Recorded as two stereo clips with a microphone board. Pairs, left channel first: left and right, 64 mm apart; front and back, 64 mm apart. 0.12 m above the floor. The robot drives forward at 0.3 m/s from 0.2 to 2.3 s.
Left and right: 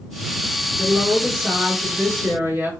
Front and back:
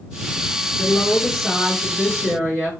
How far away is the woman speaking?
About 1.8 m.